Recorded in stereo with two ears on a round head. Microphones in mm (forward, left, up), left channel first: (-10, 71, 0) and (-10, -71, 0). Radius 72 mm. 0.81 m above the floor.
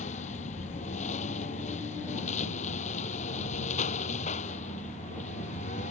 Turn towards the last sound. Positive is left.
turn(degrees=50)  # may be behind; listen again after turning